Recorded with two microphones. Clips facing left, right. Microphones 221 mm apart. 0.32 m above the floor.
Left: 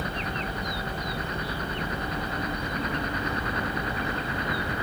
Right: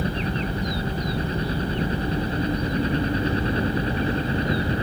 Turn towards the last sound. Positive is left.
turn(degrees=-30)  # may be behind; listen again after turning